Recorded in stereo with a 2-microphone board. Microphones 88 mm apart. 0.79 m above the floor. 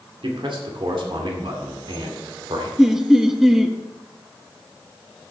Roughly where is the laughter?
Centre.